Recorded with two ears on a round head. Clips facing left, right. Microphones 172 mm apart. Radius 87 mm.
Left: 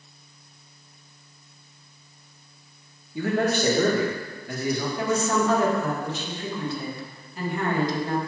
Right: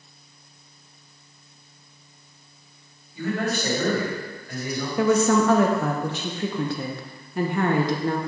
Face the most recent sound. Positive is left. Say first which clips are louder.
# right 8 dB
turn(degrees=-45)  # may be behind; listen again after turning